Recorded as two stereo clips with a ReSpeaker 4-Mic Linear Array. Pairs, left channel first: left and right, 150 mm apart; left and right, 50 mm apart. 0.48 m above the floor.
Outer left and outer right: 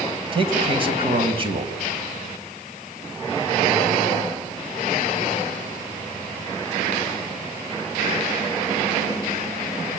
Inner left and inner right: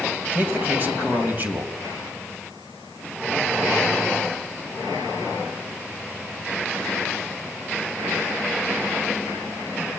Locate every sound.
0.3 s a man speaking: 35° right (ahead or behind), 3 m